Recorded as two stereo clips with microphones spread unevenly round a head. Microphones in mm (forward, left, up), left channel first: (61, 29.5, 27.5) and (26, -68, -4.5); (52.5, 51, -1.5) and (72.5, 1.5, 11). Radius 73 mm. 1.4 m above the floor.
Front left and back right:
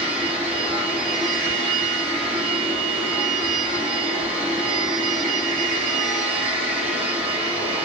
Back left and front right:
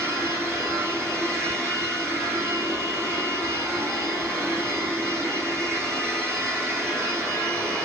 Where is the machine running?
160° right, 1.0 m.